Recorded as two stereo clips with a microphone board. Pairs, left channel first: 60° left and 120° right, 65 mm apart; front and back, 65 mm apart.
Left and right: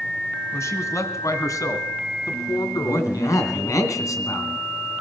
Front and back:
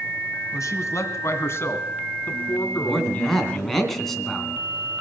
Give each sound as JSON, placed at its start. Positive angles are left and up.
{"t": 0.5, "sound": "a man speaking", "azimuth_deg": 25, "distance_m": 2.0}
{"t": 2.8, "sound": "a man speaking", "azimuth_deg": 85, "distance_m": 2.5}